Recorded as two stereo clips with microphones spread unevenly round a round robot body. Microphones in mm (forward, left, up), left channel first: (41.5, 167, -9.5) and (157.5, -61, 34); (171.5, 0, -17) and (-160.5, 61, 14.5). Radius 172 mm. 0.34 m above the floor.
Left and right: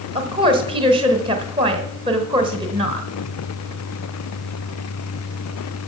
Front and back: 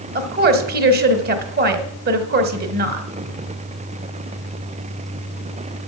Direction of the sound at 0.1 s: 135° right.